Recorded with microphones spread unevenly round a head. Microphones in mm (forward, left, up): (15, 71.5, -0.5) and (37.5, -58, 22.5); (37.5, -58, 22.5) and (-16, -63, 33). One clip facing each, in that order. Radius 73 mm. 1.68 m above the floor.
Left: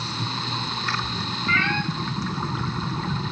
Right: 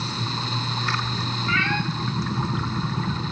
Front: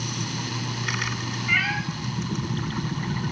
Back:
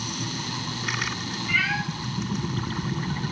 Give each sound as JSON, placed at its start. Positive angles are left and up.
{"t": 1.5, "sound": "a cat meowing", "azimuth_deg": 10, "distance_m": 4.0}